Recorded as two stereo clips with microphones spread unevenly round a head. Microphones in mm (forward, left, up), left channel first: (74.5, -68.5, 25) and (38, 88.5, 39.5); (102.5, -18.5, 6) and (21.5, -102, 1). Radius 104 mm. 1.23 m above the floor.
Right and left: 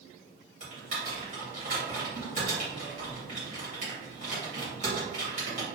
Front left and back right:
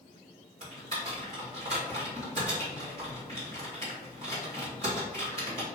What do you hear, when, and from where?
0.6 s typing on a keyboard: 160° left, 1.1 m